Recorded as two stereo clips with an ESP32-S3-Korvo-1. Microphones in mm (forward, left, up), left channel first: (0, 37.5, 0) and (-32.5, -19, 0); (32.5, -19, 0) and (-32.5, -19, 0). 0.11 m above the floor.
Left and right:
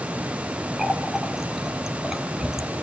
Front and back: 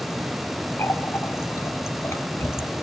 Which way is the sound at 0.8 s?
40° right.